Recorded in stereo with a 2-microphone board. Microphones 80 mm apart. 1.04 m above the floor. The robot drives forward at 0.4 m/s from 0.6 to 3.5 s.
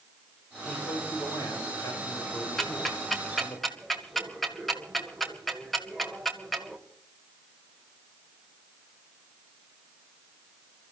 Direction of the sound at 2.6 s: 5° left (ahead or behind).